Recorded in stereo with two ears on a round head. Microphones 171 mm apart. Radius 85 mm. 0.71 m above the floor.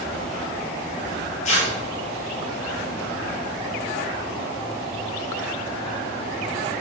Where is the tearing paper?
40° left (ahead or behind), 3 m.